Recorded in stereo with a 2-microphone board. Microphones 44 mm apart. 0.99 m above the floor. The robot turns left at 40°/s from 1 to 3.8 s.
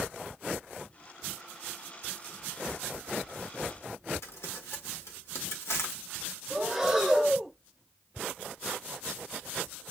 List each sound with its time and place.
4.2 s crumpling: 70° left (ahead or behind), 1.2 m
6.5 s breathing: 5° right (ahead or behind), 1.9 m